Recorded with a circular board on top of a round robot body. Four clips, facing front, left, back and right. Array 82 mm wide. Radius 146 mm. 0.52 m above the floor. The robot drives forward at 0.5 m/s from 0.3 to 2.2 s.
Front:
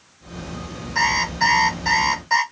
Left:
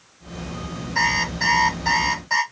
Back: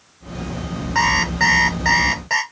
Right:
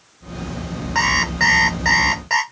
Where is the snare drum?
No snare drum in this recording.